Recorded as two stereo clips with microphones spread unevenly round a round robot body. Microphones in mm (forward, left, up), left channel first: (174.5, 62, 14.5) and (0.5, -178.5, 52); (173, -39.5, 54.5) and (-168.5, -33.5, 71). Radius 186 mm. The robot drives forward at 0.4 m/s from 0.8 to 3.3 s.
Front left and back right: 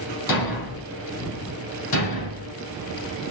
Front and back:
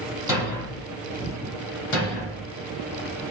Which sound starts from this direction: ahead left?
A thud, at 0.3 s.